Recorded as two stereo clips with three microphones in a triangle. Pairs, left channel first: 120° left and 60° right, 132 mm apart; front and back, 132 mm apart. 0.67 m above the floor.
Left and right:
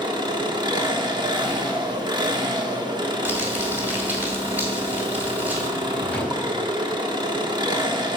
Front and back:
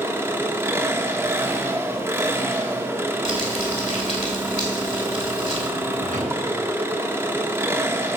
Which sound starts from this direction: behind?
A drawer, at 5.8 s.